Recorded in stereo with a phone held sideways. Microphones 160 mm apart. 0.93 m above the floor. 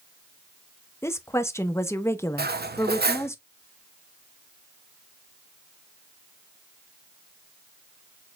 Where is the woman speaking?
15° left (ahead or behind), 0.7 m.